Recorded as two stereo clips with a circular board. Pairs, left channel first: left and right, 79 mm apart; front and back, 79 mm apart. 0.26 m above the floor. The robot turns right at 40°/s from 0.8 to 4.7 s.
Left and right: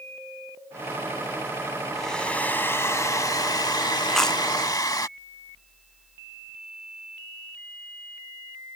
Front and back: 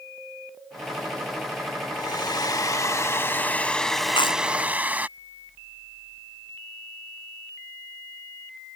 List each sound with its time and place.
1.9 s a hair dryer: 5° left; by 5.1 s 115° left
4.1 s chewing: straight ahead; by 4.4 s 15° left